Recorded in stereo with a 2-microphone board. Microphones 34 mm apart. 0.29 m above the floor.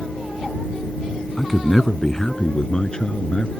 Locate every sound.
1.4 s a man speaking: 5° left (ahead or behind); by 3.5 s 35° left (ahead or behind)